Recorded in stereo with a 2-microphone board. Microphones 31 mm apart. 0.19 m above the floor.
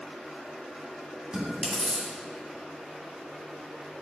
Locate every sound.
1.3 s chewing: 25° right (ahead or behind), 1.7 m